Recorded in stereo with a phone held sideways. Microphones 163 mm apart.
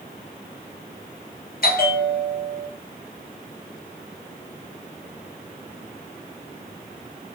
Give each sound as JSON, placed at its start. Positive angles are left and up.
{"t": 1.6, "sound": "a bell", "side_deg": 65, "distance_m": 0.7}